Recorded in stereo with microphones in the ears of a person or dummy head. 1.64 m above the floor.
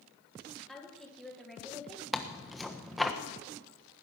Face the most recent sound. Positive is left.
turn(degrees=0)  # may be behind; listen again after turning